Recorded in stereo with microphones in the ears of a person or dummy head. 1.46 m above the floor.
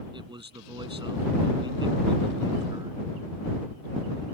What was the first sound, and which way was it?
A man speaking, 20° right (ahead or behind).